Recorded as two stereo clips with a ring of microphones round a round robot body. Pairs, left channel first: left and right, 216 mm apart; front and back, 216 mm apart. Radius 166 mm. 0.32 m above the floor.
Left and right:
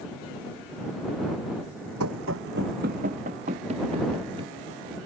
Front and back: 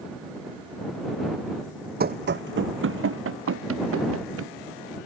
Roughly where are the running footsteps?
Behind right.